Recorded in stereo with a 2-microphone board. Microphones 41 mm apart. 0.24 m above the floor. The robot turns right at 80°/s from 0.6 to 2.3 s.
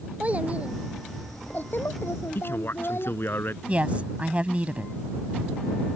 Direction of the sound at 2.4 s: 65° left (ahead or behind).